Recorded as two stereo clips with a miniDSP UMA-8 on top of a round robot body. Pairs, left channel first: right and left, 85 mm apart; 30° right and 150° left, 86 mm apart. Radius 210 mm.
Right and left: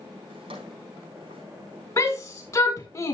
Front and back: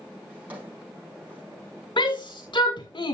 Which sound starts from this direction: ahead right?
A shout, at 2.0 s.